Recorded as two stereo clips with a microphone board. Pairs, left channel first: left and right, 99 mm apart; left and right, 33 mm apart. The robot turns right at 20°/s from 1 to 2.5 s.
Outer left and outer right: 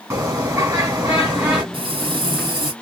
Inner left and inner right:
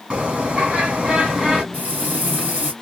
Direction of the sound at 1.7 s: 55° right (ahead or behind).